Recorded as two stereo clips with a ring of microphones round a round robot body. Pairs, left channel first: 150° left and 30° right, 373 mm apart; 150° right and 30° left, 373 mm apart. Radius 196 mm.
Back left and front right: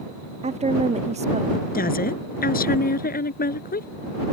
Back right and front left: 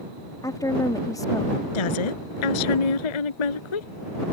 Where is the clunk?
No clunk in this recording.